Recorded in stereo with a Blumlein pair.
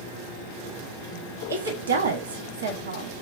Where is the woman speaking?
70° right, 0.7 m.